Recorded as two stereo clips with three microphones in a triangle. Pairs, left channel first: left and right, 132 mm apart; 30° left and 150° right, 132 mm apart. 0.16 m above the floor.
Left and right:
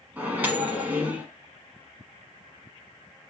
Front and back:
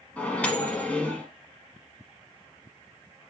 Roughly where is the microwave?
Ahead right.